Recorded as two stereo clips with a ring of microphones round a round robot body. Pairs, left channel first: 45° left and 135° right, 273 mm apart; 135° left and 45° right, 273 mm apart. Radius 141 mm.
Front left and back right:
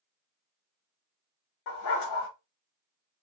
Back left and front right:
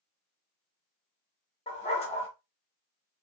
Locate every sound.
1.7 s a dog barking: 65° left, 0.9 m